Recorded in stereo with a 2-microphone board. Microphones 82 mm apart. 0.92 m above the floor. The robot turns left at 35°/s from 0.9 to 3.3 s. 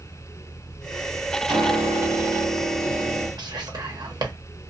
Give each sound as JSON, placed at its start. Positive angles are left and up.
{"t": 1.5, "sound": "a piano", "azimuth_deg": -80, "distance_m": 1.5}
{"t": 3.4, "sound": "whispering", "side_deg": -60, "distance_m": 0.8}